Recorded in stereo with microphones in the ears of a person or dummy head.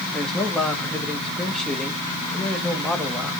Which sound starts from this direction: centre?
A man speaking, at 0.1 s.